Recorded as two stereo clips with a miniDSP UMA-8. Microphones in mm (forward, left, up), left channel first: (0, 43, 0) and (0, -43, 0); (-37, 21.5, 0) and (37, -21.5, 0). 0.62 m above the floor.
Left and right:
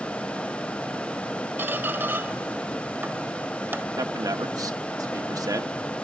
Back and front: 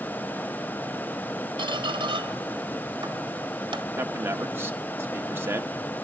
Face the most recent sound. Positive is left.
turn(degrees=-85)